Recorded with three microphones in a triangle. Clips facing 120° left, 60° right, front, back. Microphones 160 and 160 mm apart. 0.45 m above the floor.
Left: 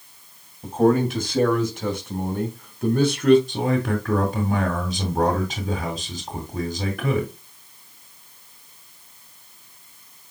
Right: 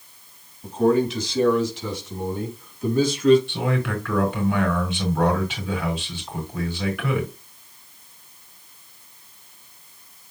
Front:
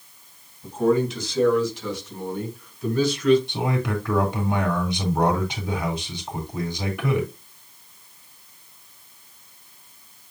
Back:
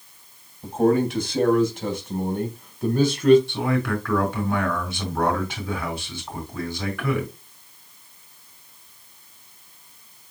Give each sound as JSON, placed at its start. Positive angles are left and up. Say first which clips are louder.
{"t": 0.6, "sound": "a man speaking", "louder": "left 1 dB, back 1 dB", "azimuth_deg": 155, "distance_m": 3.5}
{"t": 3.5, "sound": "a man speaking", "louder": "left 3 dB, back 2 dB", "azimuth_deg": 70, "distance_m": 4.5}